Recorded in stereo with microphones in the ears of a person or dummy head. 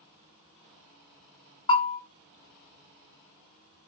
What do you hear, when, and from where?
1.7 s a bell: 30° left (ahead or behind), 2.5 m